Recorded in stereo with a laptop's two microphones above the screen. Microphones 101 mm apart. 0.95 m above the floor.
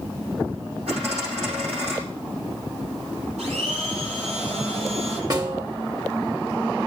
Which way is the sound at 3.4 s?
80° right.